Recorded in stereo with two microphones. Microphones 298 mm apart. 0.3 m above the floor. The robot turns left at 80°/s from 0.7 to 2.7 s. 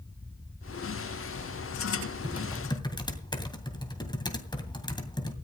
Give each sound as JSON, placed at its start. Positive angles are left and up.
{"t": 2.2, "sound": "typing on a keyboard", "side_deg": -15, "distance_m": 2.5}